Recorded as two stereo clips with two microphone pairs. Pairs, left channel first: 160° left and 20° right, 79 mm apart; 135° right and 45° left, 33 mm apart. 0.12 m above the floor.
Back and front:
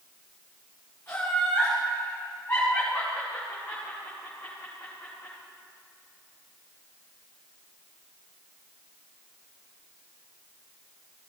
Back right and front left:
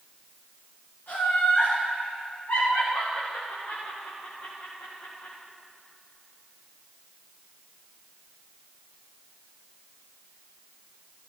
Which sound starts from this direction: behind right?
Laughter, at 1.1 s.